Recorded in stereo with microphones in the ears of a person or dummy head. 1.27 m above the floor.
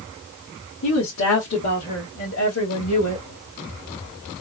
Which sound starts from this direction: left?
A woman speaking, at 0.8 s.